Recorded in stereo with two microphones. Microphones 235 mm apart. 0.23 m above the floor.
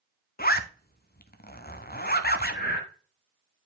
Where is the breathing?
45° left (ahead or behind), 1.1 m.